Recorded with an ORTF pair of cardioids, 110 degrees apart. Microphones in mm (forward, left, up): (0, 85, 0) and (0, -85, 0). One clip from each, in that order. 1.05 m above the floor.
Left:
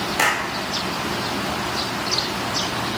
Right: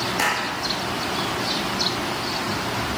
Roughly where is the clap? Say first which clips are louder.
Left 4 dB; ahead.